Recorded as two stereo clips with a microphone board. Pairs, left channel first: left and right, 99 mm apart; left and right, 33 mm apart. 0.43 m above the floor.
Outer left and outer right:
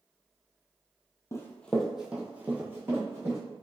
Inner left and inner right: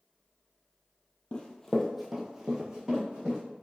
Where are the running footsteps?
30° left (ahead or behind), 0.6 m; by 3.4 s 25° right (ahead or behind), 1.9 m.